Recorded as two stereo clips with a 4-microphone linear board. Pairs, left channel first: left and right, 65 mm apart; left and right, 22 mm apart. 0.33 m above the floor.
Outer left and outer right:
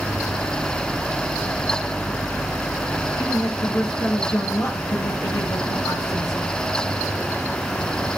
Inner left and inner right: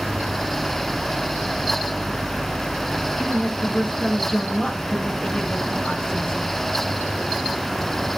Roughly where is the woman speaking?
Left.